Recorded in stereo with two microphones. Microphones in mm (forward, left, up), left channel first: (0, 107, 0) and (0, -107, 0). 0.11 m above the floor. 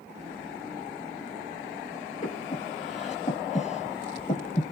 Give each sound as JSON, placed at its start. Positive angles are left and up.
{"t": 2.2, "sound": "breathing", "side_deg": 35, "distance_m": 1.1}